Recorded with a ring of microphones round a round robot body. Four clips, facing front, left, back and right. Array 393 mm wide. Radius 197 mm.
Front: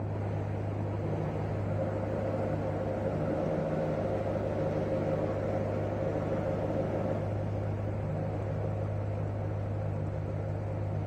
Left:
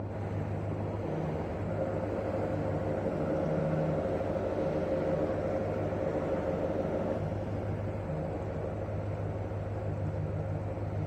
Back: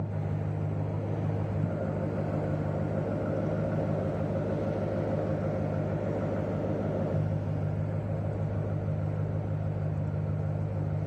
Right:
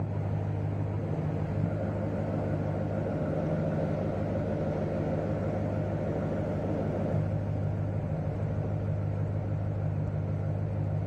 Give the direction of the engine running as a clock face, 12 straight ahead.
4 o'clock.